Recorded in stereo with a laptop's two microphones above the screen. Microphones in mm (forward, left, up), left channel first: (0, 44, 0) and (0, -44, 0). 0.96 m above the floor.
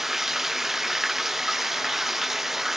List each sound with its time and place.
0.0 s running water: 5° right (ahead or behind), 0.8 m